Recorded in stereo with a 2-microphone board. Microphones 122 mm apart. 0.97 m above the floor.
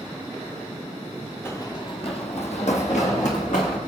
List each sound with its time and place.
1.4 s running footsteps: 20° left (ahead or behind), 1.1 m; by 3.8 s 70° left (ahead or behind), 3.5 m